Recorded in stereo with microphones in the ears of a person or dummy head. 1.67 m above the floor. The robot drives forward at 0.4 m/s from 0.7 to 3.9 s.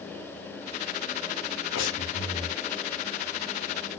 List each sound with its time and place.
1.7 s breathing: 75° left (ahead or behind), 0.6 m; by 2.6 s 50° left (ahead or behind), 0.8 m